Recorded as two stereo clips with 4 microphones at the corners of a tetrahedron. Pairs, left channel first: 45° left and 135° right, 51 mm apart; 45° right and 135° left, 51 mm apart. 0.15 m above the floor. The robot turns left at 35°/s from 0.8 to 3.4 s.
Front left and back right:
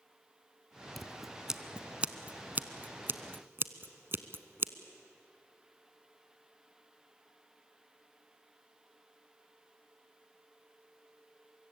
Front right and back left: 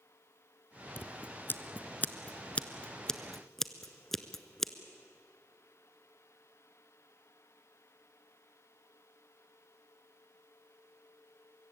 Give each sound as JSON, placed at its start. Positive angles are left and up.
{"t": 1.0, "sound": "scissors", "azimuth_deg": -40, "distance_m": 0.9}